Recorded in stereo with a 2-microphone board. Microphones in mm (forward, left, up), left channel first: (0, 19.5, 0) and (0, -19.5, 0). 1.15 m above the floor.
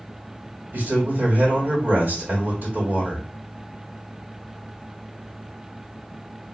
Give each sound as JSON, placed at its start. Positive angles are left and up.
{"t": 0.7, "sound": "a man speaking", "side_deg": -50, "distance_m": 2.0}